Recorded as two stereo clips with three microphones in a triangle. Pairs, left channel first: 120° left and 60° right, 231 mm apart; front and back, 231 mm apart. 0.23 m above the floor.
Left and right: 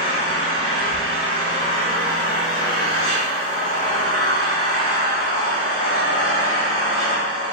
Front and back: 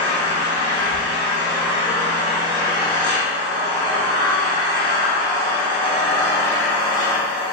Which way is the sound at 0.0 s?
60° left.